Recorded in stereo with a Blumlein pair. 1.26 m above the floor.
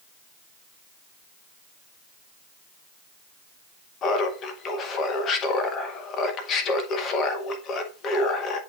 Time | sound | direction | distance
4.0 | laughter | 25° left | 1.7 m